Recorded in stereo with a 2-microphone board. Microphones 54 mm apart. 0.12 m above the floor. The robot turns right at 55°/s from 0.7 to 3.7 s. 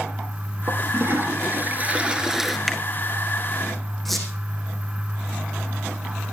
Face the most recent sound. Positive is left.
turn(degrees=0)  # may be behind; listen again after turning